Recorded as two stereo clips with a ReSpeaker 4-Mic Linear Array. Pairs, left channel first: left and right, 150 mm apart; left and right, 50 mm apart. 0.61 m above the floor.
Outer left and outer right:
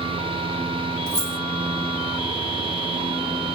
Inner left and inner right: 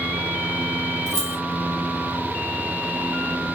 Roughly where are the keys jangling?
Centre.